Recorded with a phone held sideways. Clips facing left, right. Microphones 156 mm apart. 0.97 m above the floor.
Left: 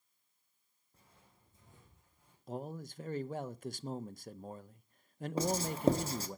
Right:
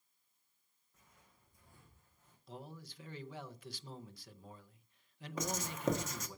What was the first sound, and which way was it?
Footsteps, 35° left (ahead or behind).